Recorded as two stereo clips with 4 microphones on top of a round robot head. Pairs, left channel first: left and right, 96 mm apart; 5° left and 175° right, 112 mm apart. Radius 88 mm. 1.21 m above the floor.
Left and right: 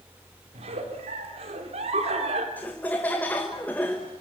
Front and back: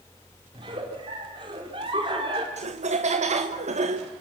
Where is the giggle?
120° right, 3 m.